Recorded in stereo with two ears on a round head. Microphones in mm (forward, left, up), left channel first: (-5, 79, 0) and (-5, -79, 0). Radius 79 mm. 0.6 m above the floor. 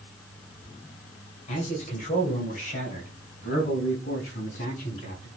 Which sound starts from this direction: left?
A man speaking, at 1.5 s.